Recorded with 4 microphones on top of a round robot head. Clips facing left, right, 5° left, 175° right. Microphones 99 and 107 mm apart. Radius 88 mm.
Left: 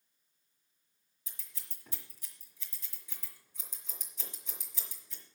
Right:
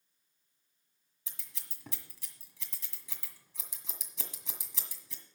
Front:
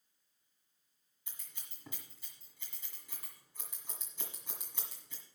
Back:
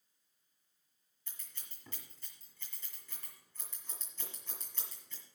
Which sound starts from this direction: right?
Scissors, at 1.3 s.